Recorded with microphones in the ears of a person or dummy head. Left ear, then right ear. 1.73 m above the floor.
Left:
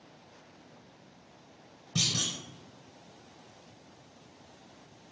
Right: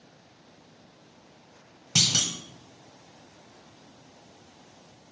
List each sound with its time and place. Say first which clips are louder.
1.9 s a clunk: right 6 dB; 35° right (ahead or behind), 0.9 m